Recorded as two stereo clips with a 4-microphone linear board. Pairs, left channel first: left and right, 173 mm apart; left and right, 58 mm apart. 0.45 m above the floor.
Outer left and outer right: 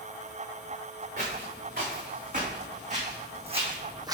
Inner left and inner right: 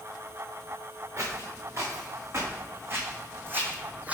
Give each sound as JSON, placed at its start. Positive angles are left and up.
{"t": 1.2, "sound": "footsteps", "side_deg": -50, "distance_m": 2.5}